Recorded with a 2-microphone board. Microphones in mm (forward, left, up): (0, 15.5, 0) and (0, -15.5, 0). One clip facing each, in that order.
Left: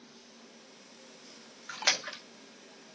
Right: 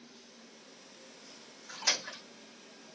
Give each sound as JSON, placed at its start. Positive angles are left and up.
{"t": 1.7, "sound": "a splash", "side_deg": 40, "distance_m": 0.6}